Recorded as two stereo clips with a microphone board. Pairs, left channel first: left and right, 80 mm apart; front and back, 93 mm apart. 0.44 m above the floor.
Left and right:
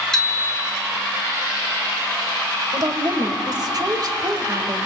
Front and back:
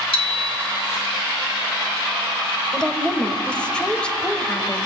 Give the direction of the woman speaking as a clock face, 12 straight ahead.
3 o'clock.